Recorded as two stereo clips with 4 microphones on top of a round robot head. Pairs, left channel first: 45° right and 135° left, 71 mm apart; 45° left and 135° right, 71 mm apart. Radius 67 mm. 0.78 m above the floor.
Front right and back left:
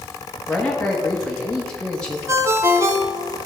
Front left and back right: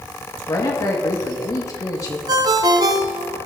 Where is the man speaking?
25° left, 1.3 m.